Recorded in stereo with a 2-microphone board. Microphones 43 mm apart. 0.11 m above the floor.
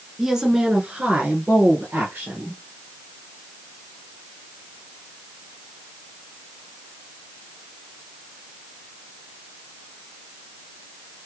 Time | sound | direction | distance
0.2 | a woman speaking | 10° right (ahead or behind) | 1.1 m